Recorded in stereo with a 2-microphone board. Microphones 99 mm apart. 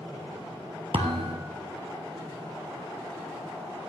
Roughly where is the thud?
Right.